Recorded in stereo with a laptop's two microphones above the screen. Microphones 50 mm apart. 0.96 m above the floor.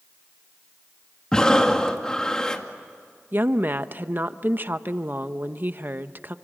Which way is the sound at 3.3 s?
40° right (ahead or behind).